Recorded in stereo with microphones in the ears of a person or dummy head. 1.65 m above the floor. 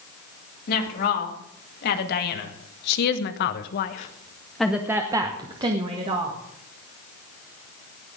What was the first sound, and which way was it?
A woman speaking, 55° left (ahead or behind).